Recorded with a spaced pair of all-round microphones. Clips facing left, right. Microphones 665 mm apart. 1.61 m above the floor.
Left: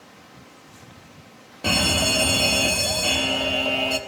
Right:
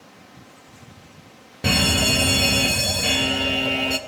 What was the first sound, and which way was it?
A fire alarm, 50° right (ahead or behind).